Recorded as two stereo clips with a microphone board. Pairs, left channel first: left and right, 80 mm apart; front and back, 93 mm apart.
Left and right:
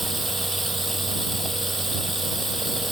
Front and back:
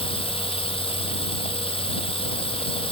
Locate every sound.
0.0 s running water: straight ahead